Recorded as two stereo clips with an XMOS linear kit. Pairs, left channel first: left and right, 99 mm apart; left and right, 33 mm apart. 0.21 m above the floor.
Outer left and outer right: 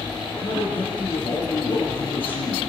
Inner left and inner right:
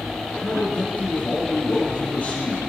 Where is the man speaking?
60° left (ahead or behind), 3 m.